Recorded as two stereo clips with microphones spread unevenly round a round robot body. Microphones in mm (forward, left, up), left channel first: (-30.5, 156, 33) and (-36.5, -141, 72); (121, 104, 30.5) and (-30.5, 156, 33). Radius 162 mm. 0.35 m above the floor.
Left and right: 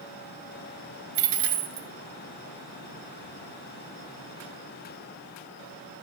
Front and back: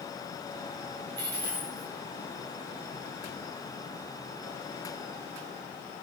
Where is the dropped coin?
130° right, 0.5 m.